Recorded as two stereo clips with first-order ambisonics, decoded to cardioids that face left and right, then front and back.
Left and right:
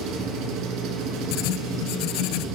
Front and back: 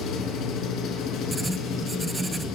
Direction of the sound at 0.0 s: 55° right.